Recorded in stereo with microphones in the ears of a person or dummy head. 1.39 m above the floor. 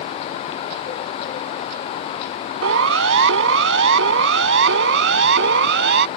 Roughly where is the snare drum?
I don't hear a snare drum.